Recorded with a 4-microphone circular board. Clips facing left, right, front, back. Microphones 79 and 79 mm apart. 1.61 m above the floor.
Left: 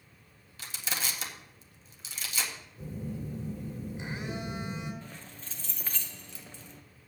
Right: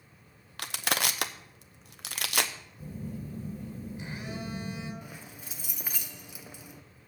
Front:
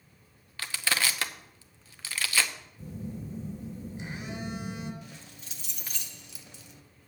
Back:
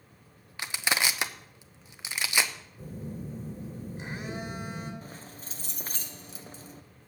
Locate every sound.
0.6 s crushing: 110° right, 0.6 m
2.8 s a phone buzzing: 150° left, 2 m
5.0 s keys jangling: 165° right, 0.6 m